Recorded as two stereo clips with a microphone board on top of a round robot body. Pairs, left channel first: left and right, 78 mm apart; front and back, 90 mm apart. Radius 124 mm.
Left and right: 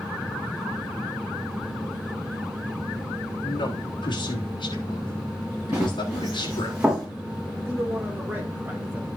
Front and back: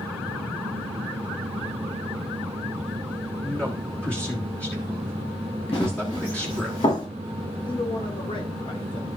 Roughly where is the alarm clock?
I don't hear an alarm clock.